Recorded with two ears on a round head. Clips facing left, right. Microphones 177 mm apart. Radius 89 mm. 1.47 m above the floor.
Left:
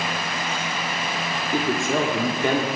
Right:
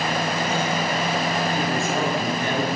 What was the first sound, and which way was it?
A woman speaking, 65° left (ahead or behind).